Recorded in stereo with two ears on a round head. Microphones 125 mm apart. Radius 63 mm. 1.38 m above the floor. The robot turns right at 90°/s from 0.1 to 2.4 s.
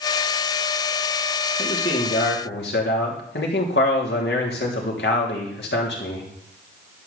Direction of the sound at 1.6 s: 10° left.